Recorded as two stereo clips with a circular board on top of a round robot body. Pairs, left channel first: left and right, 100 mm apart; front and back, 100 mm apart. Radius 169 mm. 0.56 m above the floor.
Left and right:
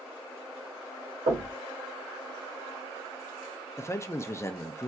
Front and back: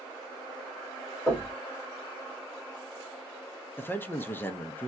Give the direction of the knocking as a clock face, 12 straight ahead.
3 o'clock.